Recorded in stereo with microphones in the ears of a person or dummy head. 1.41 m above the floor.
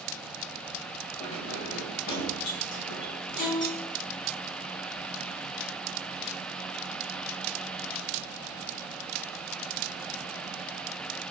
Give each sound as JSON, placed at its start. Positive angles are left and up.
{"t": 1.2, "sound": "keys jangling", "side_deg": 40, "distance_m": 1.1}
{"t": 3.4, "sound": "a violin", "side_deg": 65, "distance_m": 0.5}